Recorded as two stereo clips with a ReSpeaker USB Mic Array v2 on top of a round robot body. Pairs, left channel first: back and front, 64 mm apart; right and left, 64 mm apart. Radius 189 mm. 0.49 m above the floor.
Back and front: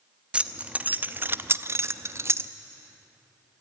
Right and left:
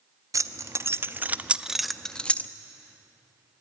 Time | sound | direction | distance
0.3 | keys jangling | 70° left | 1.1 m